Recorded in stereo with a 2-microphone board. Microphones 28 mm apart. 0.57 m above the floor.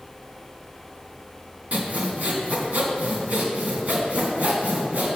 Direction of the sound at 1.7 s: 70° right (ahead or behind).